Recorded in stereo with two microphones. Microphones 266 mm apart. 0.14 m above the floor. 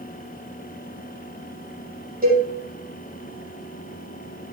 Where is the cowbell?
30° right (ahead or behind), 5 m.